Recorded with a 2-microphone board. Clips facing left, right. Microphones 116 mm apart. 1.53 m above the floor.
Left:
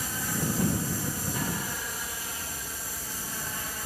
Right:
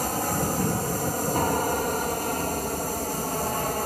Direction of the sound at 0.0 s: 55° right (ahead or behind).